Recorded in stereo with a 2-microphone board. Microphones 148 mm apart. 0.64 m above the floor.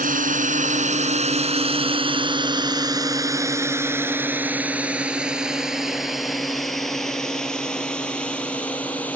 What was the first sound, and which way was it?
A drone, 65° right (ahead or behind).